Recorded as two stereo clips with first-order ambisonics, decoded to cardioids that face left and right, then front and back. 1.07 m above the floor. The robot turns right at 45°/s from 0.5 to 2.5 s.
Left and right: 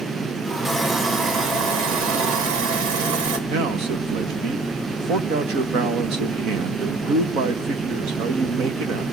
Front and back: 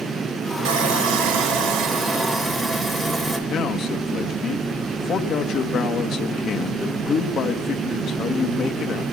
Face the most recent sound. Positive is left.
turn(degrees=-55)